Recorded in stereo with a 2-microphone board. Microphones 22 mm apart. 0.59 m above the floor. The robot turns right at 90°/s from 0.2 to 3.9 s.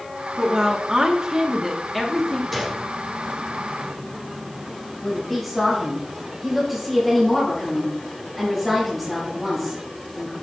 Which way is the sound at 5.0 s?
Centre (ahead or behind).